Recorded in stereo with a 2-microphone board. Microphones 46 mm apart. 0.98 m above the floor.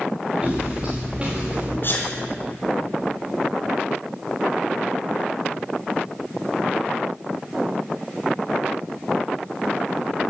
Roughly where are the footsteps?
Centre.